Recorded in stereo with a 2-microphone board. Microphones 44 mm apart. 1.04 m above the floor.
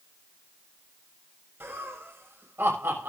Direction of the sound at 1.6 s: 65° right (ahead or behind).